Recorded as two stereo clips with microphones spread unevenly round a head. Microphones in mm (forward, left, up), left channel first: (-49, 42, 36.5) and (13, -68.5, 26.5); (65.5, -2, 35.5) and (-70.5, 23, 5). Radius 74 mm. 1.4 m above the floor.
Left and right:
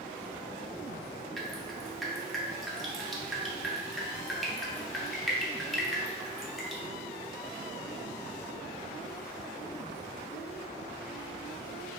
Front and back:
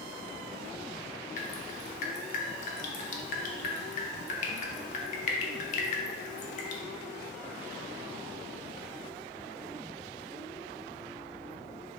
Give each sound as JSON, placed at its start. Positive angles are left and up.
{"t": 1.4, "sound": "dripping", "azimuth_deg": 25, "distance_m": 0.5}